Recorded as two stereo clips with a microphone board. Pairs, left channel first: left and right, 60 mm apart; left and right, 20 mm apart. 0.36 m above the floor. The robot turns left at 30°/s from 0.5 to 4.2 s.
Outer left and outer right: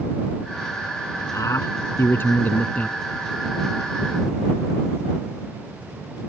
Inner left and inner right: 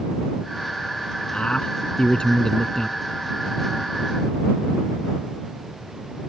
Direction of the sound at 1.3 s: 70° left.